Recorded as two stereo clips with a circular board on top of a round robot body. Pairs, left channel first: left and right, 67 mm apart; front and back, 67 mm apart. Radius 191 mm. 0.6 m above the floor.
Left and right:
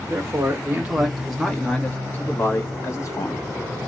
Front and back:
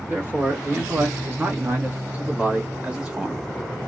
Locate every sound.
0.1 s a man speaking: 125° right, 1.4 m; by 3.4 s 110° left, 1.8 m